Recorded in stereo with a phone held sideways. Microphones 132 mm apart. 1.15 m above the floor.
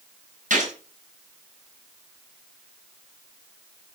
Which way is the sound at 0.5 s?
70° right (ahead or behind).